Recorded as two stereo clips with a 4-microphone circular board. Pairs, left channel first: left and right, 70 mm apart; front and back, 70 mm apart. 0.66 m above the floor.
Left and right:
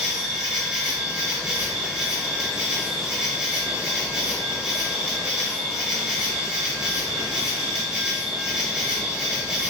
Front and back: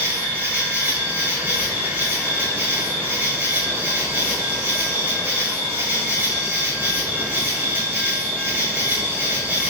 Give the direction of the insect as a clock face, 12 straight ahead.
5 o'clock.